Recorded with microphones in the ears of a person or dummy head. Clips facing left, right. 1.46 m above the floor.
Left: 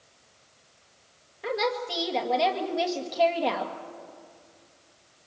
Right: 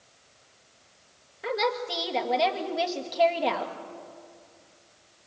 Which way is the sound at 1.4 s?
Centre (ahead or behind).